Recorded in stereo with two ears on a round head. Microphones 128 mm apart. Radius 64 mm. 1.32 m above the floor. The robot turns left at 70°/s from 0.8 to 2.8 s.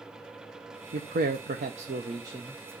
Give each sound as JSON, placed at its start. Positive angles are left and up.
{"t": 0.9, "sound": "a man speaking", "azimuth_deg": -60, "distance_m": 1.1}